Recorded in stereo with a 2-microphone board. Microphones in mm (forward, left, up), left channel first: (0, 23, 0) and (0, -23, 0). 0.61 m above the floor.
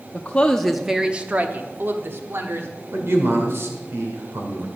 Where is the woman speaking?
30° left (ahead or behind), 0.8 m; by 2.7 s 65° right (ahead or behind), 1.6 m.